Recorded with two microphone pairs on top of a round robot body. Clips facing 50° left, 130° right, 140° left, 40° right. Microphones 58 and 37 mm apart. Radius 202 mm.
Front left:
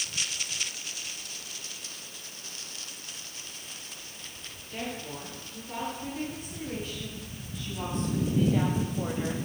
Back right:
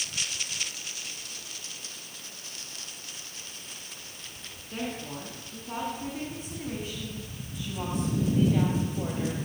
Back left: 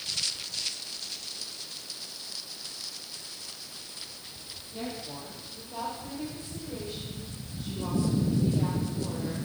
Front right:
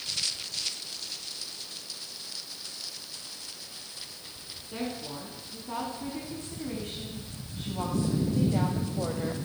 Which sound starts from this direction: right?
A woman speaking, at 4.7 s.